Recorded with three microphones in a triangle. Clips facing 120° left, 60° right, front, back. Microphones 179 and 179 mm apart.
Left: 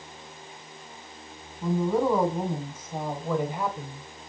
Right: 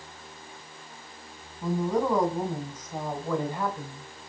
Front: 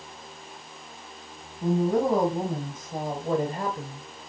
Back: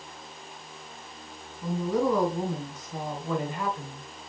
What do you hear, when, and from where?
1.6 s a woman speaking: 35° left, 3 m; by 4.1 s 50° left, 1.6 m